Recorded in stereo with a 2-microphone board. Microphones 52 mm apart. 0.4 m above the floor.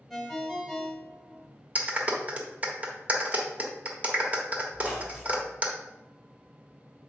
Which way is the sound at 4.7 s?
15° right (ahead or behind).